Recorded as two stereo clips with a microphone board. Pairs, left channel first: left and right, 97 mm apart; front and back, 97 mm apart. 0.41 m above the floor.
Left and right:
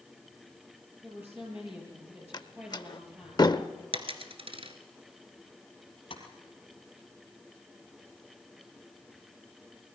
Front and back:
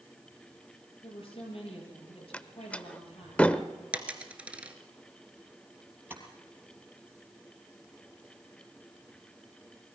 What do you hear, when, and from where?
1.0 s a woman speaking: 20° right, 7.5 m
2.3 s a door slam: 75° left, 0.7 m
3.9 s a dropped coin: 105° right, 1.4 m
6.1 s tapping: 110° left, 3 m